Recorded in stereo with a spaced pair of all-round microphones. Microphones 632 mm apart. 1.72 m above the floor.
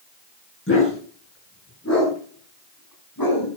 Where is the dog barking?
20° left (ahead or behind), 8 m; by 3.5 s 30° left (ahead or behind), 5.5 m.